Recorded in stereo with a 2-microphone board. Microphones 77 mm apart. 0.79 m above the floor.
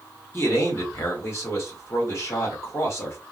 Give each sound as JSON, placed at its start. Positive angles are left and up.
{"t": 0.3, "sound": "a man speaking", "side_deg": 35, "distance_m": 1.3}